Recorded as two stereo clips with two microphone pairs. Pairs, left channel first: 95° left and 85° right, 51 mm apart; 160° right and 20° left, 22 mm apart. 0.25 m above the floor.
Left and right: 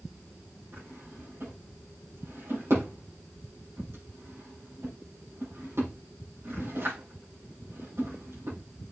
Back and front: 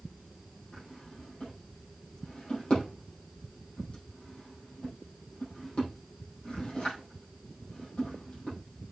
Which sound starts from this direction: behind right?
A drawer, at 0.7 s.